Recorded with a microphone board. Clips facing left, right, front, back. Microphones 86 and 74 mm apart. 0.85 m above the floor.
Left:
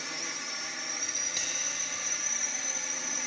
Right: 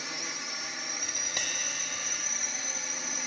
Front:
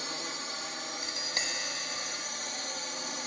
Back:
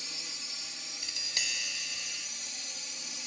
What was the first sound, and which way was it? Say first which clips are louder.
A drone: even, front 10 dB; straight ahead.